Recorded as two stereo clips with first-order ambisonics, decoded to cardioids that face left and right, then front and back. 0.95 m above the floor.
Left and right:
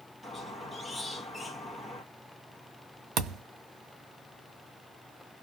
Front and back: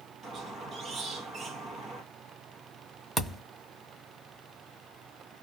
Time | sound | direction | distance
0.2 | a squeak | 160° left | 1.0 m
3.2 | a thud | 95° right | 0.8 m